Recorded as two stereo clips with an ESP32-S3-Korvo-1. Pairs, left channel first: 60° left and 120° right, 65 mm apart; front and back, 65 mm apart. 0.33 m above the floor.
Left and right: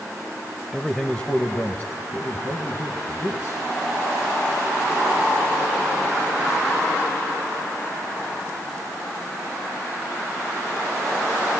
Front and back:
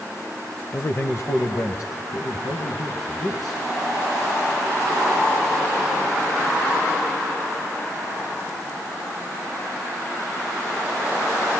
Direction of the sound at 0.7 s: 35° right.